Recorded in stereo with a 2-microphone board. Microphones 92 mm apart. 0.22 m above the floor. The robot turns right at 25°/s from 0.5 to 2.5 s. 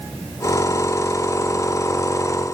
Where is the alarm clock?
I don't hear an alarm clock.